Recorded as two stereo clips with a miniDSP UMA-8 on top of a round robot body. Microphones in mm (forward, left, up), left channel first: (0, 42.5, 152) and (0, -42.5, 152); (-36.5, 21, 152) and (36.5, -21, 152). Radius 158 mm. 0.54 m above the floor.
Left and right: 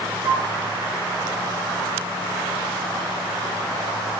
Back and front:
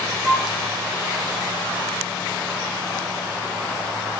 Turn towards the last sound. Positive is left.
turn(degrees=-105)